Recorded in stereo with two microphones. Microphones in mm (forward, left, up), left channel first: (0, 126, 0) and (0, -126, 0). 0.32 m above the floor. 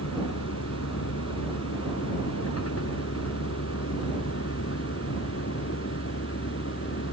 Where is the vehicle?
80° left; by 7.1 s 55° left (ahead or behind).